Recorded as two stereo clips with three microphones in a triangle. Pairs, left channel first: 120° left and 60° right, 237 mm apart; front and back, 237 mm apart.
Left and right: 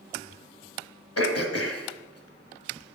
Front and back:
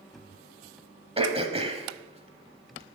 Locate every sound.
1.2 s throat clearing: 115° left, 1.2 m